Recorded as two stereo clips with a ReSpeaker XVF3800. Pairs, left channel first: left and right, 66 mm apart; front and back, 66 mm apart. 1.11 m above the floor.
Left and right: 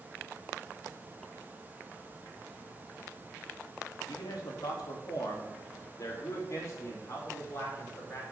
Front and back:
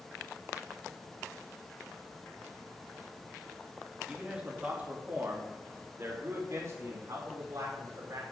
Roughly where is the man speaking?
Left.